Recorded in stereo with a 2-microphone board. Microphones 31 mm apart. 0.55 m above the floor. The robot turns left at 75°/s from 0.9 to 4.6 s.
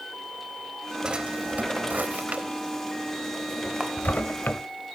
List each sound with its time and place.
1.0 s a drawer: 25° right (ahead or behind), 0.6 m; by 4.6 s 65° left (ahead or behind), 0.6 m
3.8 s a camera shutter: 30° right (ahead or behind), 1.9 m; by 3.9 s 35° right (ahead or behind), 1.9 m